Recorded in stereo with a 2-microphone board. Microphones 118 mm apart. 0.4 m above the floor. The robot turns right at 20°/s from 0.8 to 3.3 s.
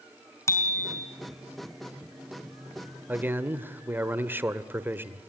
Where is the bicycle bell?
25° left (ahead or behind), 3.5 m; by 1.1 s 30° left (ahead or behind), 3.5 m.